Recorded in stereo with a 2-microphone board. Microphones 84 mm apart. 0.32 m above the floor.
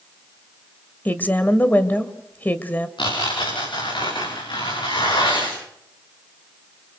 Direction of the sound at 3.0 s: 75° left (ahead or behind).